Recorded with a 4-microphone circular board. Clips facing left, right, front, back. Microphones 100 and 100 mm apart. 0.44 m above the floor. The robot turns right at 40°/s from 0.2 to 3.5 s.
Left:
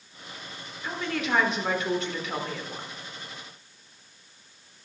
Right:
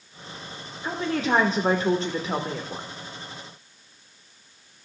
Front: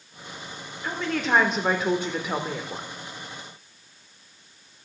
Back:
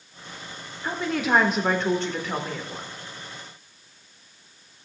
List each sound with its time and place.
0.8 s a woman speaking: 120° right, 0.8 m; by 2.9 s 40° right, 0.8 m